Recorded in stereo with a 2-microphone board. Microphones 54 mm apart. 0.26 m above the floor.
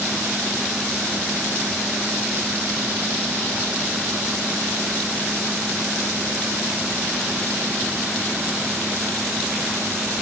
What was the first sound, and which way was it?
Only background noise.